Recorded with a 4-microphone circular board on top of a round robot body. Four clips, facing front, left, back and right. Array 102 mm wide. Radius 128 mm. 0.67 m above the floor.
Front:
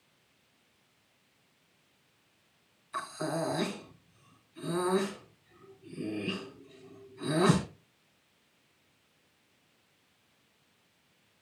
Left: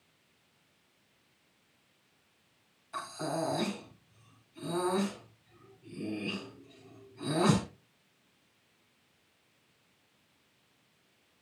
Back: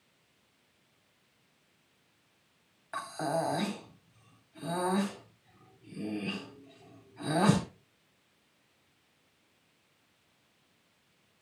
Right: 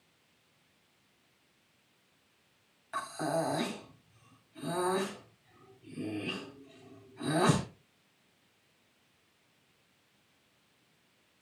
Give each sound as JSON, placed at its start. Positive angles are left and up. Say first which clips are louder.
{"t": 2.9, "sound": "breathing", "louder": "right 3 dB, back 2 dB", "azimuth_deg": -160, "distance_m": 4.0}